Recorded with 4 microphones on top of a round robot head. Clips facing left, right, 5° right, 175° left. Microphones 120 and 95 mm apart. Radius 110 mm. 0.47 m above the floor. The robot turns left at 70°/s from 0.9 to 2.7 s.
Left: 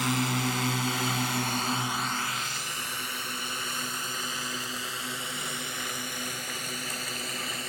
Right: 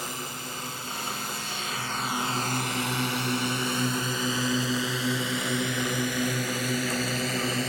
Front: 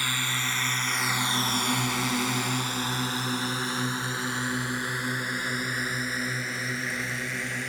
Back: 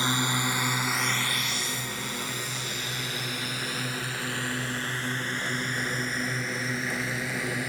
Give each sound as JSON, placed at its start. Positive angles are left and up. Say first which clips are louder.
{"t": 0.0, "sound": "a drone", "louder": "left 9 dB, back 4 dB", "azimuth_deg": 110}